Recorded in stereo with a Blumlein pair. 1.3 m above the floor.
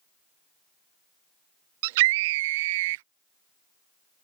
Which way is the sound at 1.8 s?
50° right.